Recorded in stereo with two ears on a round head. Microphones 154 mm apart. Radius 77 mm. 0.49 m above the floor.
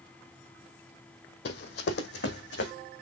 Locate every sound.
1.4 s running footsteps: 65° left (ahead or behind), 1.3 m; by 2.7 s 70° left (ahead or behind), 2 m